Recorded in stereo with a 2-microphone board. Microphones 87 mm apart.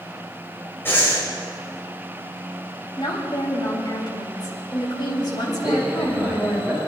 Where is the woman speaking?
50° left (ahead or behind), 4 m.